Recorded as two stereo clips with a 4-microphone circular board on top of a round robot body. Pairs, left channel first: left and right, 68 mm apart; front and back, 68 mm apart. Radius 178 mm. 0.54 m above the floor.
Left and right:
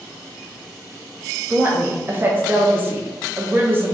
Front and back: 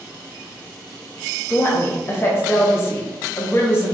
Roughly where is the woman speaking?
Ahead right.